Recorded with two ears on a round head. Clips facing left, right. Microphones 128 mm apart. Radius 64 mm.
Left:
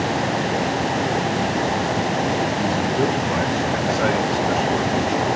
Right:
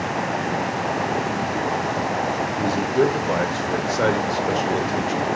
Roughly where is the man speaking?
Right.